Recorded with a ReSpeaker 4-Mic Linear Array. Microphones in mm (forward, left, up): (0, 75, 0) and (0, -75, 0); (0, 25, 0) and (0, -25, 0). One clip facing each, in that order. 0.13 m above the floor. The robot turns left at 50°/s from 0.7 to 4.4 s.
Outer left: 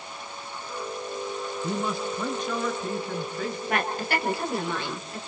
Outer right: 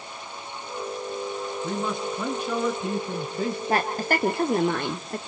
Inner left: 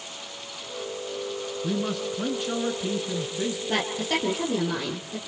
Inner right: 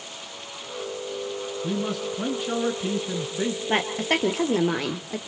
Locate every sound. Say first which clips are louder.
1.6 s a man speaking: even, even; 25° left, 1.6 m; by 3.6 s 75° right, 1.6 m
3.7 s a woman speaking: outer right 2 dB, inner right 3 dB; 35° right, 2 m; by 5.2 s 70° right, 2 m